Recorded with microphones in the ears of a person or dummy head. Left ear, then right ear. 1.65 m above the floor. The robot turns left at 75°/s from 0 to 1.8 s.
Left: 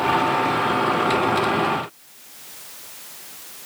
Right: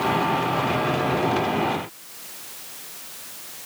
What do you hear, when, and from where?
Only background noise.